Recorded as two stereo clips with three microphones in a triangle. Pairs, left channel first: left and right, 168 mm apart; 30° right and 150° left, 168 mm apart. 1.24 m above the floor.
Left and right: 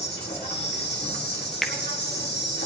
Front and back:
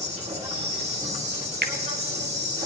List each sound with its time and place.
0.0 s an insect: 100° left, 2.0 m
1.6 s a finger snap: straight behind, 0.7 m